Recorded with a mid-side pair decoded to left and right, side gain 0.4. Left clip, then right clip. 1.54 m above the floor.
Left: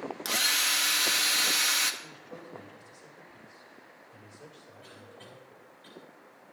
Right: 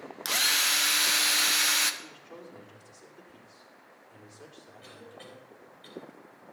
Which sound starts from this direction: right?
A cough, at 4.8 s.